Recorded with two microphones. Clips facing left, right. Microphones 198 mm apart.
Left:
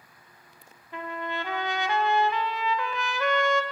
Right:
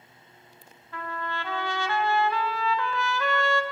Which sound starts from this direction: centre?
A trumpet, at 0.9 s.